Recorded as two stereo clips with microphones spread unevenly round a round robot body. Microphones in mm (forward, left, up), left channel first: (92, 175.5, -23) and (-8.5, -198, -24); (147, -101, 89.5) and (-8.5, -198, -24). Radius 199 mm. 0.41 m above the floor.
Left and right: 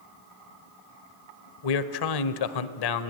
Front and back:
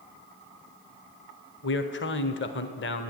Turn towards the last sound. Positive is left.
turn(degrees=95)